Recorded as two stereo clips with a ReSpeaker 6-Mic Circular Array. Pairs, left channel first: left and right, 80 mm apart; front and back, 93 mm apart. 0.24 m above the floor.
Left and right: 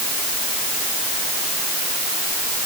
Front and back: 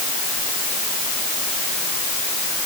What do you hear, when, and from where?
Only background noise.